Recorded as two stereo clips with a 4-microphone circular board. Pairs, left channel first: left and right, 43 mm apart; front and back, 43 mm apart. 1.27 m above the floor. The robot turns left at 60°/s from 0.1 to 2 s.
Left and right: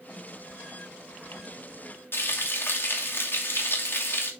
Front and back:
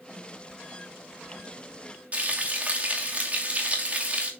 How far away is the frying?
About 2.5 m.